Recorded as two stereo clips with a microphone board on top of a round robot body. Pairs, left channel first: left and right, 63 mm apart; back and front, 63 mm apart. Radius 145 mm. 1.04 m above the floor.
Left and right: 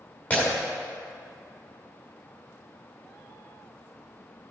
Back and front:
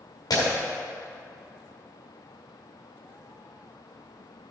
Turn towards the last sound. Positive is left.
turn(degrees=155)